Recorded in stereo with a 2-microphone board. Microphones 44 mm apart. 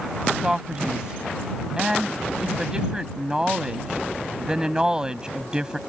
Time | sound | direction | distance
0.4 | a man speaking | 15° right (ahead or behind) | ?